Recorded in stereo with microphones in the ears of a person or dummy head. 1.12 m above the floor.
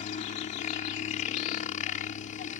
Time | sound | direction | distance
0.0 | a helicopter | 45° left (ahead or behind) | ?